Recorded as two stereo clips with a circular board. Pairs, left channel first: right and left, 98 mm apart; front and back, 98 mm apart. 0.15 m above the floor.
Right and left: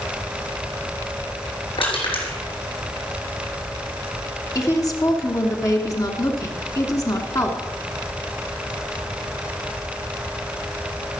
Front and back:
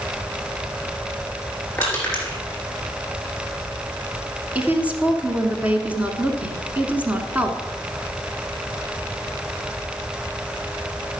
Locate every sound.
1.8 s crushing: 75° right, 3.5 m
4.5 s a woman speaking: 115° right, 1.3 m